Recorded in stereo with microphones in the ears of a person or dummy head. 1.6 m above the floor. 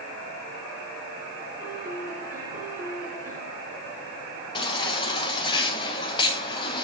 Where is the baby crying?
30° left (ahead or behind), 1.4 m.